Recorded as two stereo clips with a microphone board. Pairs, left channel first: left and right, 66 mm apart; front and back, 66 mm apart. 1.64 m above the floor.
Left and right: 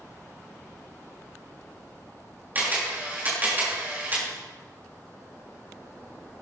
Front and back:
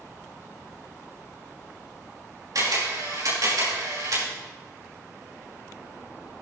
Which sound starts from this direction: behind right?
A camera shutter, at 2.5 s.